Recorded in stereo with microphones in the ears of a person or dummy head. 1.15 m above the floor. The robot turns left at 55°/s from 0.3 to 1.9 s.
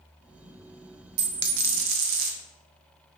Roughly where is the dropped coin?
Ahead right.